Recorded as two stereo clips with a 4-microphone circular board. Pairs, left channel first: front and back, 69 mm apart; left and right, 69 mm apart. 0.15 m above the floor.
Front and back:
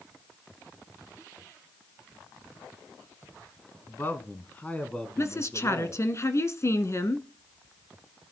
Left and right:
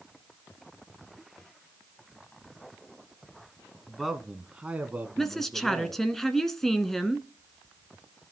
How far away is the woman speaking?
About 1.3 m.